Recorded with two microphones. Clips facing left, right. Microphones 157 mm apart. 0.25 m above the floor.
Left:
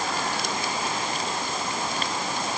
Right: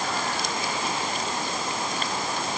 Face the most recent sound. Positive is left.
No sound to turn to.